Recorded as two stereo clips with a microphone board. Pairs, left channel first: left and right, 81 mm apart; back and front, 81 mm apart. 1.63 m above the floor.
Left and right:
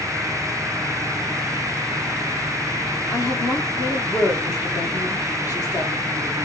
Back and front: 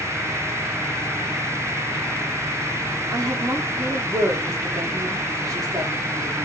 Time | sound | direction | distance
3.1 | a woman speaking | 45° left | 1.2 m